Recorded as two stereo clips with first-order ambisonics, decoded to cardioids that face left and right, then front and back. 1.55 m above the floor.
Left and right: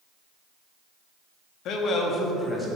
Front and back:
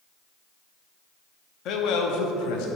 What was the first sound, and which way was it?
A man speaking, 45° left.